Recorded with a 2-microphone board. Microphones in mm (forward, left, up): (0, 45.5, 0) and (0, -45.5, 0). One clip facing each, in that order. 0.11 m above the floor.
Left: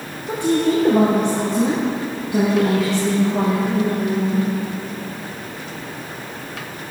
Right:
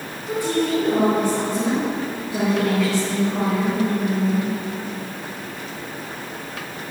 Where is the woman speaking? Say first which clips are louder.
Left 3 dB; 30° left (ahead or behind), 2.5 m; by 4.5 s 15° left (ahead or behind), 8.5 m.